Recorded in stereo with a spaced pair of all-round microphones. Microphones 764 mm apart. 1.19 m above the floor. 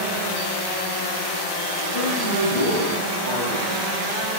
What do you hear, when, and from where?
1.9 s a man speaking: 50° left (ahead or behind), 5.5 m